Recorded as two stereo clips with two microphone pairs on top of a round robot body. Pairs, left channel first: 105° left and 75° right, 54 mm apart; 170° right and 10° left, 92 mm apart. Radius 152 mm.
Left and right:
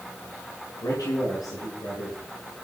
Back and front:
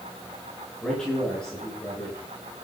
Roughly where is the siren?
I don't hear a siren.